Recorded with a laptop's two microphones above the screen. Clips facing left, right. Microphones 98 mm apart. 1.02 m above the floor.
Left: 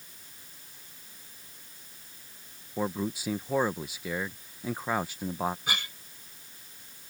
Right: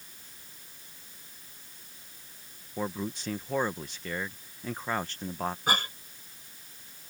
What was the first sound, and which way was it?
A man speaking, 10° left (ahead or behind).